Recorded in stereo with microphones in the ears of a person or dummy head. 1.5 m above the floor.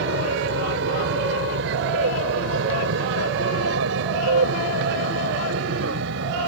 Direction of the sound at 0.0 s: 65° right (ahead or behind).